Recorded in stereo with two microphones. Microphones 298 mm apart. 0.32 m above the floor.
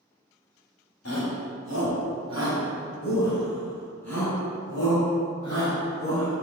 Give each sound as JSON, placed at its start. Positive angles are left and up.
{"t": 1.1, "sound": "a shout", "side_deg": 55, "distance_m": 1.7}